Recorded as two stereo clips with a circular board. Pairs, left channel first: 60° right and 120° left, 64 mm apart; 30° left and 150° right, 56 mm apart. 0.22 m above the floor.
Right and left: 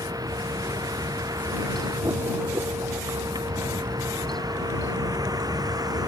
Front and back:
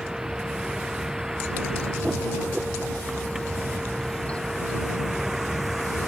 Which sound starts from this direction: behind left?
A vehicle, at 0.0 s.